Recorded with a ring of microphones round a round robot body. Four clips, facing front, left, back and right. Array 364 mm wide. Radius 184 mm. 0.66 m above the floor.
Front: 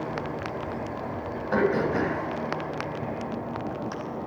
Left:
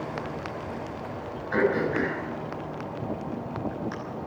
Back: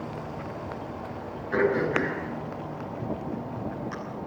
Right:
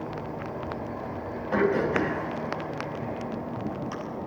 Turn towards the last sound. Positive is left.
turn(degrees=-20)